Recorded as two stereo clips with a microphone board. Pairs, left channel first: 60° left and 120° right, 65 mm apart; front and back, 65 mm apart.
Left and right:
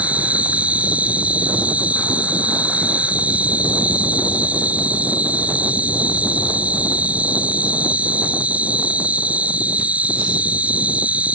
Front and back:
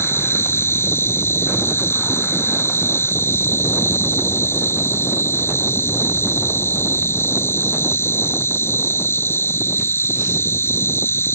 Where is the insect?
50° right.